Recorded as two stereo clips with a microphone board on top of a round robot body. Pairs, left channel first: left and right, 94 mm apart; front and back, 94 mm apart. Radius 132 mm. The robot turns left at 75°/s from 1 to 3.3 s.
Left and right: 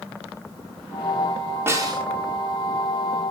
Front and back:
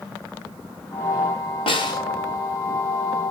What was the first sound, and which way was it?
A snare drum, 25° right.